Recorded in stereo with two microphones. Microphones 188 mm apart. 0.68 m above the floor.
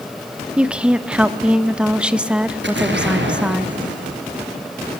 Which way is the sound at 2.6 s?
85° right.